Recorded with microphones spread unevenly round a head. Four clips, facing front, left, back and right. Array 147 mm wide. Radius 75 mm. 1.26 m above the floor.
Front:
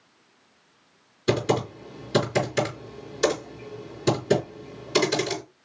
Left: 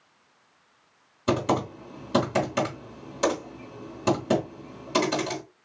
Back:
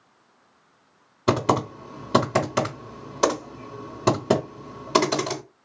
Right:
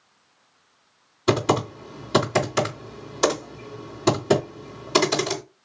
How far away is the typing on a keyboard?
About 3 m.